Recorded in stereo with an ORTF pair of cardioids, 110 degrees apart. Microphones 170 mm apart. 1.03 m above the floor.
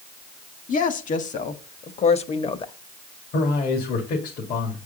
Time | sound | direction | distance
0.7 | a woman speaking | 50° left | 1.8 m
3.3 | a man speaking | 70° left | 2.5 m